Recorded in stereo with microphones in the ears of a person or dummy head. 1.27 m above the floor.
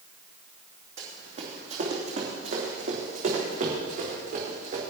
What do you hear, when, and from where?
1.0 s running footsteps: 45° right (ahead or behind), 3 m; by 4.8 s 55° right (ahead or behind), 4.5 m